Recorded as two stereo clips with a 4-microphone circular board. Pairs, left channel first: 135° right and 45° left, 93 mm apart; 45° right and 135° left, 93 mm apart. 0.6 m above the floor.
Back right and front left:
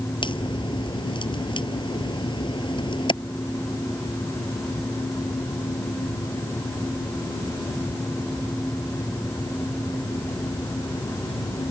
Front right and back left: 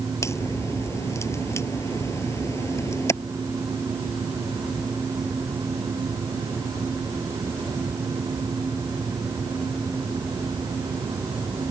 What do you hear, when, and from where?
0.2 s a crack: 105° right